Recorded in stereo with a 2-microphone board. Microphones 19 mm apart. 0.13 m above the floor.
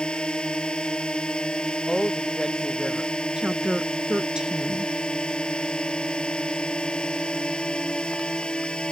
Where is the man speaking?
5° left (ahead or behind).